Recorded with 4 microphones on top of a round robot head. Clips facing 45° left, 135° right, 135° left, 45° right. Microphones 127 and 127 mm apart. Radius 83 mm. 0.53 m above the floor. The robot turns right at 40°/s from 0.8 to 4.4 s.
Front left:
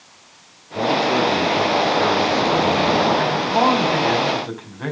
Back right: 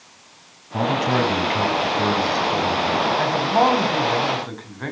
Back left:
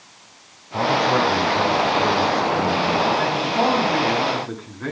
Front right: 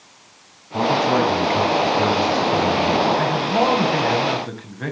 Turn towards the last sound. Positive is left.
turn(degrees=-35)